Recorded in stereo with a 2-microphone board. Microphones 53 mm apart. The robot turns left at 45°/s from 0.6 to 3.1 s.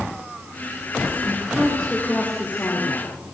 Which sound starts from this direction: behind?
A woman speaking, at 1.2 s.